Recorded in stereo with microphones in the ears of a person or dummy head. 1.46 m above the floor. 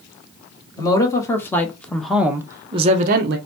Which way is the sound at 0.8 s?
25° left (ahead or behind).